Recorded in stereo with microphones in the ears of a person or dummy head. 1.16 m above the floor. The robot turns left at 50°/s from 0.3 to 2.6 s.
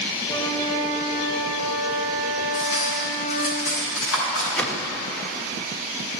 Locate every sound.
0.3 s a flute: 155° left, 1.9 m; by 3.5 s 40° left, 1.9 m
2.5 s cutlery clinking: 70° left (ahead or behind), 4.5 m
4.5 s a whoosh: 15° left (ahead or behind), 1.0 m